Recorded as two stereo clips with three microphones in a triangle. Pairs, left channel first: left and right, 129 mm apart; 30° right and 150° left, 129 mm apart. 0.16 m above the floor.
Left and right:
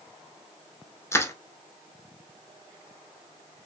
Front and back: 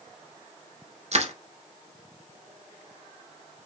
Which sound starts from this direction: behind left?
Crushing, at 1.1 s.